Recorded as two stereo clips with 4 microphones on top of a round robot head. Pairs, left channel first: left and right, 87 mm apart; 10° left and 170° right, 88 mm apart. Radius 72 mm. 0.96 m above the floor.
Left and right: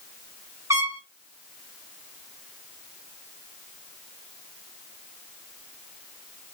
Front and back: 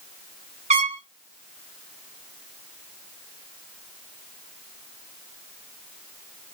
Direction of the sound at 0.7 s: 160° right.